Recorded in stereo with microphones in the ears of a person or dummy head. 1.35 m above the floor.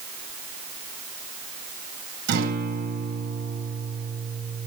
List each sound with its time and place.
2.3 s a guitar: 60° right (ahead or behind), 7 m